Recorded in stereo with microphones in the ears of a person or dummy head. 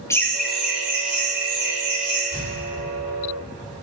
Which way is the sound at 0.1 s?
10° left (ahead or behind).